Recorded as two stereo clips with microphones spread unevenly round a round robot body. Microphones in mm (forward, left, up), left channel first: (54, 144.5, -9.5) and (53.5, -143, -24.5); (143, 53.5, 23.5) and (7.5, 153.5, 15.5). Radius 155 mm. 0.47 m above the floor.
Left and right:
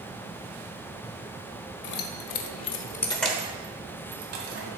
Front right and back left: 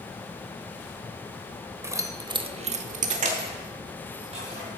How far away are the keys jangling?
About 1.5 m.